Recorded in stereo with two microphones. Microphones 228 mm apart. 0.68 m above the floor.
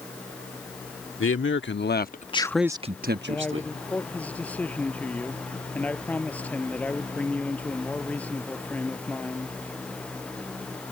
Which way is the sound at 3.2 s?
5° left (ahead or behind).